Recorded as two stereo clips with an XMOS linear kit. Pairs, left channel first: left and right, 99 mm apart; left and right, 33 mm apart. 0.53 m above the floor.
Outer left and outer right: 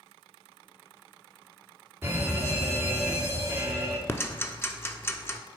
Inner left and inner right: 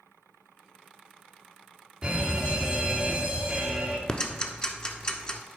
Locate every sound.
2.0 s a fire alarm: 20° right (ahead or behind), 2 m
4.1 s ticking: 25° left (ahead or behind), 0.9 m